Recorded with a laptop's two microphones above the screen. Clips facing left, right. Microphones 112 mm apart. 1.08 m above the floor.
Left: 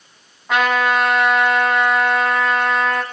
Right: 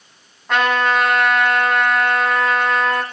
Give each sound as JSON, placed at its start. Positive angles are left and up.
{"t": 0.5, "sound": "a trumpet", "side_deg": 5, "distance_m": 2.0}